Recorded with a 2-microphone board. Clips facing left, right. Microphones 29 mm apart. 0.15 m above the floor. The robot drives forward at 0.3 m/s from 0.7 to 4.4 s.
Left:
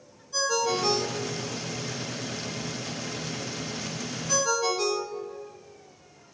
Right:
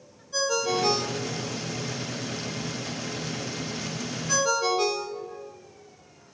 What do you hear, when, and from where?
0.3 s a ringtone: 10° right (ahead or behind), 3 m; by 5.5 s 15° right (ahead or behind), 2 m